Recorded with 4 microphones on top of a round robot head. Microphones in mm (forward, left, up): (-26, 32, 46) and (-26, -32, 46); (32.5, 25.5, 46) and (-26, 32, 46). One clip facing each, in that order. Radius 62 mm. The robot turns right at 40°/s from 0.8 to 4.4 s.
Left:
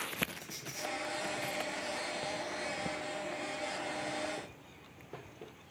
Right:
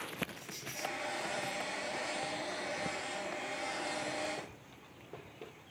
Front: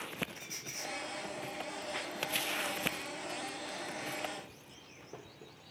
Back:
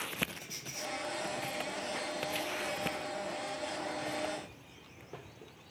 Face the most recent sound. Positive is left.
turn(degrees=-155)